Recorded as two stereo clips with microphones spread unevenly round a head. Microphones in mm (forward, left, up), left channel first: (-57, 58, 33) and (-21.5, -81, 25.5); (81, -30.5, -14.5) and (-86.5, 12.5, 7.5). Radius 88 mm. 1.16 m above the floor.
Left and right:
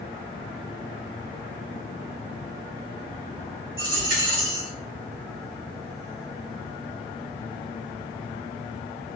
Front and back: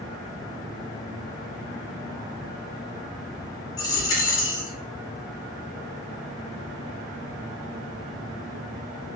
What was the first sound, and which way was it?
A dropped coin, 85° right.